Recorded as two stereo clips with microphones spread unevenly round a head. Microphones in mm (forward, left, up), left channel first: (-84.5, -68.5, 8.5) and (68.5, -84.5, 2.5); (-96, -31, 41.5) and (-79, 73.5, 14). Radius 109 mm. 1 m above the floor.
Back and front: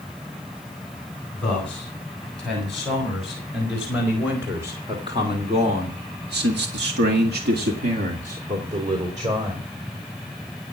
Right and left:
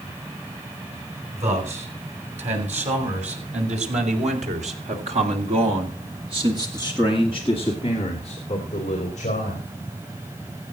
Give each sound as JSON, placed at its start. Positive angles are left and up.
{"t": 1.3, "sound": "a man speaking", "azimuth_deg": 90, "distance_m": 7.5}